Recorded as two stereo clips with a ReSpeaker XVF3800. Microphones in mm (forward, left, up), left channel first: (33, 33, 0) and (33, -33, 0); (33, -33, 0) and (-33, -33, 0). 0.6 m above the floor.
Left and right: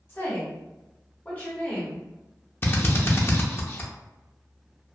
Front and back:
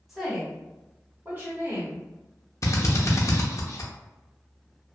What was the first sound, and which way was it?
A woman speaking, 95° left.